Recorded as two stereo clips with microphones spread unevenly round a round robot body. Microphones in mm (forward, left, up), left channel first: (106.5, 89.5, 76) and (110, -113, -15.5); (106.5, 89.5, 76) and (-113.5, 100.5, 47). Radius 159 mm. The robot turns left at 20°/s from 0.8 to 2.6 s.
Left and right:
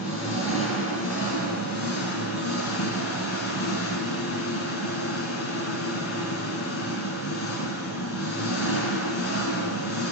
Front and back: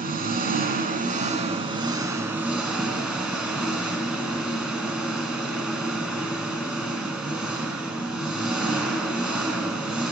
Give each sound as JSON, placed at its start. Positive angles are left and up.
{"t": 0.0, "sound": "an engine running", "azimuth_deg": 125, "distance_m": 2.5}